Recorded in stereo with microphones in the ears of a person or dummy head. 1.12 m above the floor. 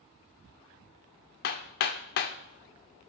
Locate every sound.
1.4 s hammering: 55° left (ahead or behind), 1.1 m